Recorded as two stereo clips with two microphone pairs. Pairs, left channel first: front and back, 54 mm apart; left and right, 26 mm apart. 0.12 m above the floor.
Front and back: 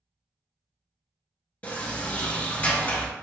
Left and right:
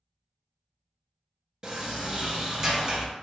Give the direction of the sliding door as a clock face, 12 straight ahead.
1 o'clock.